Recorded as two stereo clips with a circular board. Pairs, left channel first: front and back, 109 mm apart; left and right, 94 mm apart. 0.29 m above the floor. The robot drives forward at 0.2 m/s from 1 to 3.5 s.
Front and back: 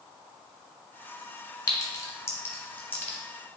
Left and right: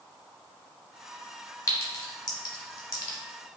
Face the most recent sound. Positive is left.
turn(degrees=75)